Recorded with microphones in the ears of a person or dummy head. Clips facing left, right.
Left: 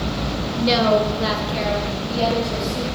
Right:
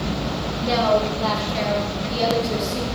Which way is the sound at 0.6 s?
50° left (ahead or behind).